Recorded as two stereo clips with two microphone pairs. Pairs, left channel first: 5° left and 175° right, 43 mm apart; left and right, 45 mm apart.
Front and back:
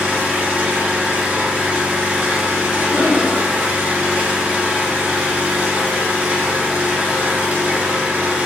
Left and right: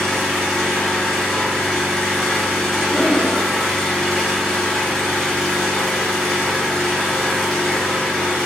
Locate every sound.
0.0 s an engine running: 165° left, 1.5 m
2.9 s breathing: 50° right, 1.0 m